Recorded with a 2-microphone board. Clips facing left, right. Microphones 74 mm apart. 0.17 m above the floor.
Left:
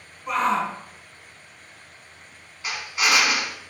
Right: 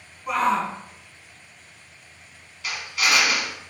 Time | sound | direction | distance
0.3 | a shout | 5° right (ahead or behind) | 1.5 m
2.6 | a drill | 25° left (ahead or behind) | 1.1 m